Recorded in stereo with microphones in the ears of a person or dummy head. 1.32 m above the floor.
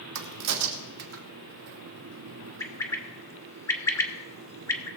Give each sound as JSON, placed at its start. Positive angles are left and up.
{"t": 0.1, "sound": "a crack", "side_deg": -80, "distance_m": 1.6}
{"t": 2.6, "sound": "a bird", "side_deg": 15, "distance_m": 0.9}